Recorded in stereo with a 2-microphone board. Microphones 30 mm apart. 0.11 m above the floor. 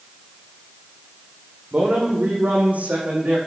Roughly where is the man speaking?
Right.